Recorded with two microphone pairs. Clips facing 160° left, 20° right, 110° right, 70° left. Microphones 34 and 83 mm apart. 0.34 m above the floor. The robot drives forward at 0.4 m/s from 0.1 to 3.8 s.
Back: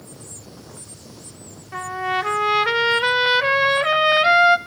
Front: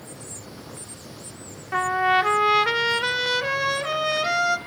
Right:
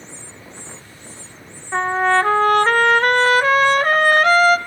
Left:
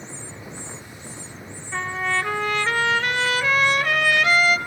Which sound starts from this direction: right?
A trumpet, at 1.7 s.